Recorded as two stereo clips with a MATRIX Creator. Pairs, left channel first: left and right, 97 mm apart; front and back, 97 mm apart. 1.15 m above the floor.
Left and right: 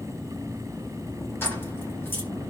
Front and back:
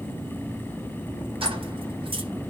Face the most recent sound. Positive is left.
turn(degrees=160)